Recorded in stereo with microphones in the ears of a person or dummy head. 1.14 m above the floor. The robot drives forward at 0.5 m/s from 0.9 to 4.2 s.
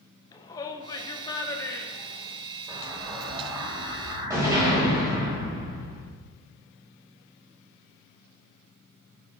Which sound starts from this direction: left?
A shout, at 0.3 s.